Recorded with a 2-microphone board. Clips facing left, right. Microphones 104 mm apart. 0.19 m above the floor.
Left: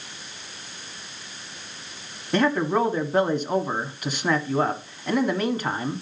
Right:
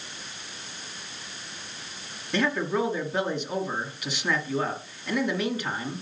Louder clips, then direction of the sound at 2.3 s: Left 5 dB; 45° left (ahead or behind).